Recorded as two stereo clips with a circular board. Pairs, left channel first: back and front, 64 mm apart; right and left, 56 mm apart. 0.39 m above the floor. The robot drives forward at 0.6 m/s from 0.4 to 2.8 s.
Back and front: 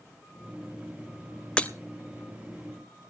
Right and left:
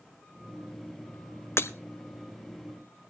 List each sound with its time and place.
1.6 s breaking glass: 115° right, 0.9 m; by 1.7 s 120° right, 0.9 m